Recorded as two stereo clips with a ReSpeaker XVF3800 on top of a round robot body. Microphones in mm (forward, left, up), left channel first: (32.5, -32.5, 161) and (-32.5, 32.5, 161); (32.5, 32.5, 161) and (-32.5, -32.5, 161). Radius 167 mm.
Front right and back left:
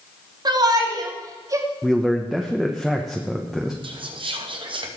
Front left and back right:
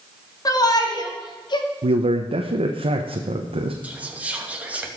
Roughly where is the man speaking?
Behind right.